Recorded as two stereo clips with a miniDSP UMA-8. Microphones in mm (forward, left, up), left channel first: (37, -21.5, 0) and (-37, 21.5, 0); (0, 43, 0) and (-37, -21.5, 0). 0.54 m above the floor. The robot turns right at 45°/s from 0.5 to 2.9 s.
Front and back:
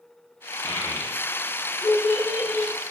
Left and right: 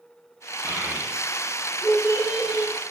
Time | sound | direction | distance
0.6 | a child speaking | 65° right | 2.5 m